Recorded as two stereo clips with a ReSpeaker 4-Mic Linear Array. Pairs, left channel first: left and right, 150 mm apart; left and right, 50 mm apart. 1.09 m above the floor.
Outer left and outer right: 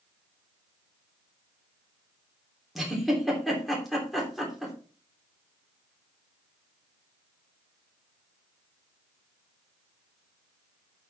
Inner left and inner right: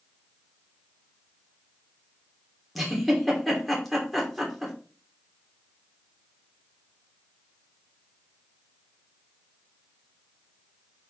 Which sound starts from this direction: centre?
A giggle, at 2.8 s.